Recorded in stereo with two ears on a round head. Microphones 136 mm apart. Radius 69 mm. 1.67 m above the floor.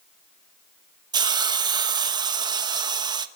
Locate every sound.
1.1 s a hiss: 30° right (ahead or behind), 1.1 m